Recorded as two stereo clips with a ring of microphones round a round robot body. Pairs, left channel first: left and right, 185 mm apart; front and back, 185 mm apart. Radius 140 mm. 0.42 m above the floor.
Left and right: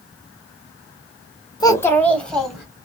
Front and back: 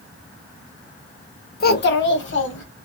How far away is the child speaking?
About 1.0 m.